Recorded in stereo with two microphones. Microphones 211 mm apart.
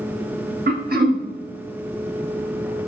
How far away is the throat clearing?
About 1.2 m.